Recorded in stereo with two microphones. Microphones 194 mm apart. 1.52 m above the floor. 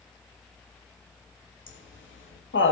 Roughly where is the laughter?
Left.